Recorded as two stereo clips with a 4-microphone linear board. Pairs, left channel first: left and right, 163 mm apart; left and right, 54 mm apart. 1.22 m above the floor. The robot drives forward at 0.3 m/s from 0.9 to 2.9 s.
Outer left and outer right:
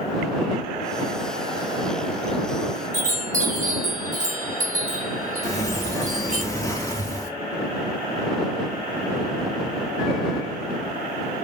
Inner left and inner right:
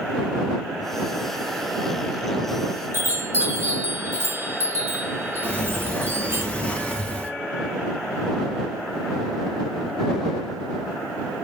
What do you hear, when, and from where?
2.9 s a chime: 50° right (ahead or behind), 1.7 m
5.4 s a sliding door: 20° left (ahead or behind), 1.1 m